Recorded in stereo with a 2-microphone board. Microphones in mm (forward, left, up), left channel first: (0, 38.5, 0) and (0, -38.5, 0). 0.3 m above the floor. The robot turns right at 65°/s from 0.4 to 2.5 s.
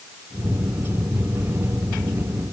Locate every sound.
Only background noise.